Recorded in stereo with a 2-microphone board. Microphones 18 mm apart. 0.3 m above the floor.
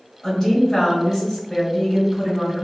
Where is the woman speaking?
25° left (ahead or behind), 1.3 m.